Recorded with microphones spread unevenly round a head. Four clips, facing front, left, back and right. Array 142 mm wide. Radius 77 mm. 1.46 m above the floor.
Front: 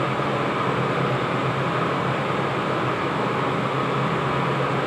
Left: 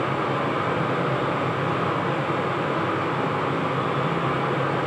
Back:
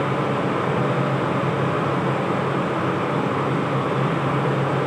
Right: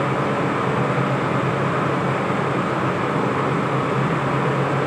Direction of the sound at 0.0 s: 130° right.